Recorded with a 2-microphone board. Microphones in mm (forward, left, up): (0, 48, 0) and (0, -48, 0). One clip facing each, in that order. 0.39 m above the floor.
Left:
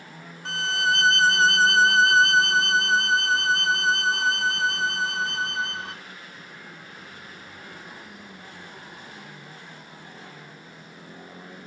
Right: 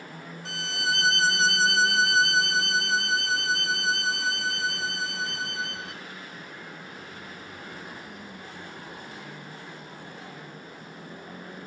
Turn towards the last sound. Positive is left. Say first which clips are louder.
# left 6 dB
turn(degrees=55)  # may be behind; listen again after turning